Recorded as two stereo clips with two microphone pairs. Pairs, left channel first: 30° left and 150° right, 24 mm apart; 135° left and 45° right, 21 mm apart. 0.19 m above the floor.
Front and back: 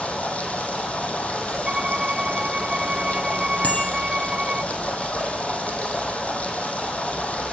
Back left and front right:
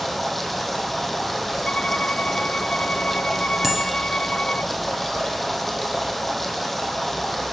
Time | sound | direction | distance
0.0 | running water | 50° left | 2.5 m
1.7 | a violin | 175° left | 0.5 m
3.6 | a bicycle bell | 30° left | 3.5 m